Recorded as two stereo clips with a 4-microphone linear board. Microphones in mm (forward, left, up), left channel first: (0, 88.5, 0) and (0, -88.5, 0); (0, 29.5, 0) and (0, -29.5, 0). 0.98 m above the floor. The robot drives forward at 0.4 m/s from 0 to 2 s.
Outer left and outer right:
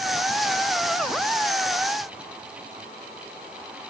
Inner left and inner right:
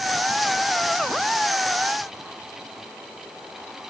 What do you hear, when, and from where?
Only background noise.